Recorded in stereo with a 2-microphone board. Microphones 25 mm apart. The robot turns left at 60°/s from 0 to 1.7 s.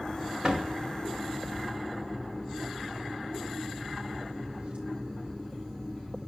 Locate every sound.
0.4 s a door slam: 45° right (ahead or behind), 4 m; by 6.3 s 60° right (ahead or behind), 4 m